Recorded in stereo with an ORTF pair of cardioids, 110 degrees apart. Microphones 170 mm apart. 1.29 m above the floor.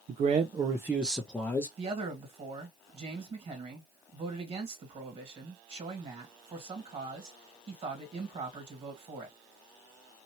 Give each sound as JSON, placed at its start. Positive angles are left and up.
{"t": 0.1, "sound": "a man speaking", "azimuth_deg": -50, "distance_m": 0.6}
{"t": 1.8, "sound": "a man speaking", "azimuth_deg": -35, "distance_m": 1.9}